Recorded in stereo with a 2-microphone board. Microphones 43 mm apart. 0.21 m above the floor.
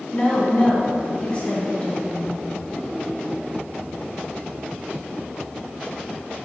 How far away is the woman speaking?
About 1.8 m.